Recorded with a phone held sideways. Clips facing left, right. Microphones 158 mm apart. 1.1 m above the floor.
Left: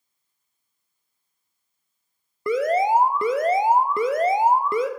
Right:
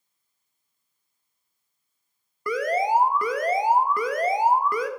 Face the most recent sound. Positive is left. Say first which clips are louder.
# left 3 dB
turn(degrees=25)  # may be behind; listen again after turning